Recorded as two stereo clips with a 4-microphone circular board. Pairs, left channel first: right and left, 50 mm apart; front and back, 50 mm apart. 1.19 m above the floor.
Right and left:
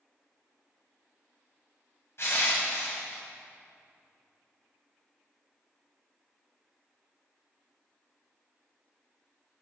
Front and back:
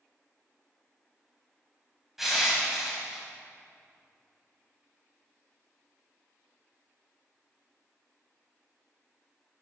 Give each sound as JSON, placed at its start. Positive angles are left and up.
{"t": 2.2, "sound": "crushing", "azimuth_deg": -100, "distance_m": 1.9}